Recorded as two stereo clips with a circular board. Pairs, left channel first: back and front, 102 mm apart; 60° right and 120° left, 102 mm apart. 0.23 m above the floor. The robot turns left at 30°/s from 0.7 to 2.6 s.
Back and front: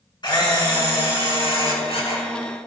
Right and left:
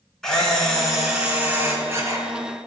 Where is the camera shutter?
145° right, 3 m; by 2.2 s 170° left, 3 m.